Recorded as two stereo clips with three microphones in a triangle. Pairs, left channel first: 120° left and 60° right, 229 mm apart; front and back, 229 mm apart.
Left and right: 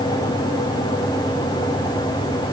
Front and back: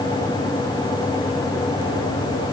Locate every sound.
Only background noise.